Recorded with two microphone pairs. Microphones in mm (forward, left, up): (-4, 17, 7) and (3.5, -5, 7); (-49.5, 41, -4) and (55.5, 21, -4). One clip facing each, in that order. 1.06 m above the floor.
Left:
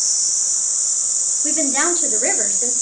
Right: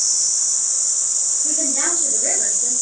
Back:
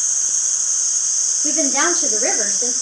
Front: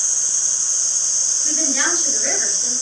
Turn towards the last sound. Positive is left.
turn(degrees=145)